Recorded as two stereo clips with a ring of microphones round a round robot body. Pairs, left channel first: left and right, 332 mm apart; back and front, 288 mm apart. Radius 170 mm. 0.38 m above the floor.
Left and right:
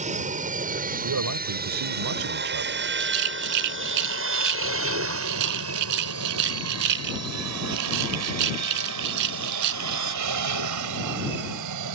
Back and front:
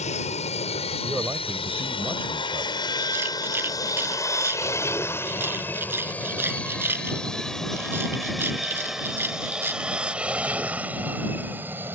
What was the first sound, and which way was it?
An aircraft, 135° right.